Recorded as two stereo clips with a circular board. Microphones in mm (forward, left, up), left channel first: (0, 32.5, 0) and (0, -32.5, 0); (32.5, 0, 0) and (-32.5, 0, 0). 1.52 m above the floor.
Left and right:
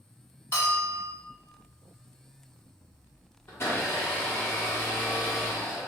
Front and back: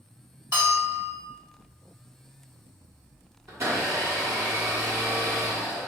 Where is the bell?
135° left, 1.6 m.